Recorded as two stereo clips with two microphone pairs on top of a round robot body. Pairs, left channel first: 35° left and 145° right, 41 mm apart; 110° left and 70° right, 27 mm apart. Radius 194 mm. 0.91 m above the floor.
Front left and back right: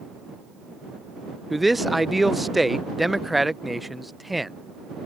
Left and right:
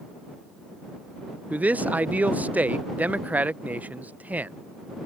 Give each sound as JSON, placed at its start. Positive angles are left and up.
{"t": 1.5, "sound": "a man speaking", "azimuth_deg": -50}